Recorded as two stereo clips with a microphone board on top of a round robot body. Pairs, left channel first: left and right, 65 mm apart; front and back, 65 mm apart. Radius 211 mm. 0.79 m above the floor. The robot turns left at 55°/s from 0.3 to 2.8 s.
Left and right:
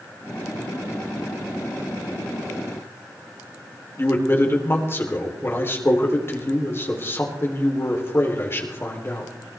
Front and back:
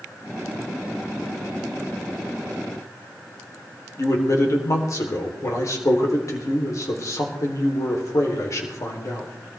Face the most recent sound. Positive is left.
turn(degrees=35)